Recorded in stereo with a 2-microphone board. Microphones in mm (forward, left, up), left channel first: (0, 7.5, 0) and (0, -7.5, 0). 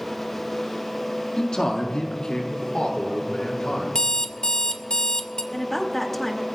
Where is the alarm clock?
75° left (ahead or behind), 0.7 m.